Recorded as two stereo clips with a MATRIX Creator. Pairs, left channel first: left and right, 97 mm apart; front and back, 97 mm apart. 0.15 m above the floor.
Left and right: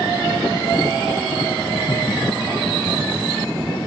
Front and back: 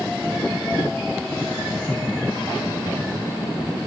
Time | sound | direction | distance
1.7 | laughter | 90° left | 2.5 m